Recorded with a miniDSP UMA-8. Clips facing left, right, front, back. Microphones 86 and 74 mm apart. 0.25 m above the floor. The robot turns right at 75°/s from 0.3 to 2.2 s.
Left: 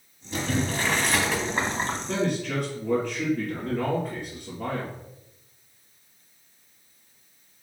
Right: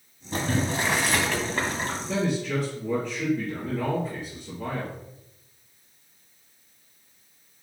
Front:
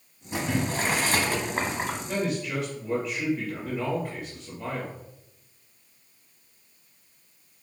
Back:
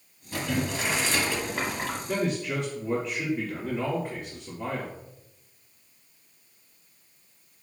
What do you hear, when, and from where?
0.3 s boiling: 60° right, 1.2 m; by 2.0 s 65° left, 1.2 m
2.1 s a man speaking: 100° left, 3.5 m; by 5.0 s 110° left, 3.5 m